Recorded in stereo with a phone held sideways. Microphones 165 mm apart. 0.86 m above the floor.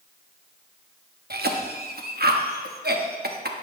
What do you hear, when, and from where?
1.3 s a cough: 70° right (ahead or behind), 1.0 m